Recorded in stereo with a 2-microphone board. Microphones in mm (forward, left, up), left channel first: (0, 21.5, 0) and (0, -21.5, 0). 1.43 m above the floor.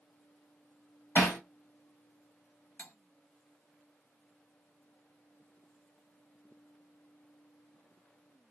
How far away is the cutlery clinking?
About 0.9 m.